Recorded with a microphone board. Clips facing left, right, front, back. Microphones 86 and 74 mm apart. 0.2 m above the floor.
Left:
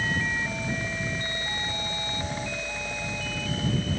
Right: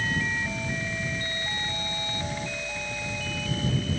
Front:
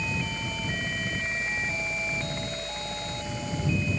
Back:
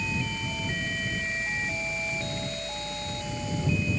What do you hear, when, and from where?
Only background noise.